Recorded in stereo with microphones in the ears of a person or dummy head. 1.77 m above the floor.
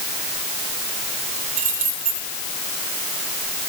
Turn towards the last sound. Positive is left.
turn(degrees=-40)  # may be behind; listen again after turning